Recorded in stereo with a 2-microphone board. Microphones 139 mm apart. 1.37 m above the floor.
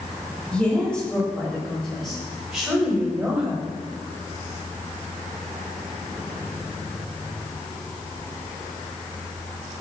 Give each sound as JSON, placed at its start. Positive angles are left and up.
{"t": 0.5, "sound": "a woman speaking", "side_deg": 10, "distance_m": 6.0}